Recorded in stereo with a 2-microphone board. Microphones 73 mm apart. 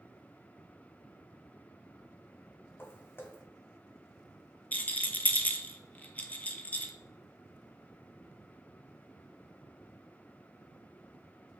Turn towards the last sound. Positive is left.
turn(degrees=20)  # may be behind; listen again after turning